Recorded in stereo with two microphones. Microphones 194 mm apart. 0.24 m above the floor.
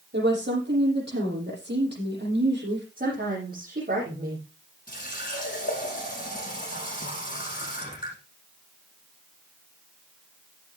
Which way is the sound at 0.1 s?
65° right (ahead or behind).